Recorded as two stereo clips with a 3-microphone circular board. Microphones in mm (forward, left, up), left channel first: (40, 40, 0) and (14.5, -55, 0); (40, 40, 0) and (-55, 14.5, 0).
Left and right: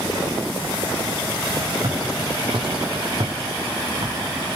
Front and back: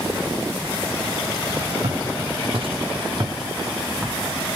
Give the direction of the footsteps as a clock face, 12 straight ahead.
5 o'clock.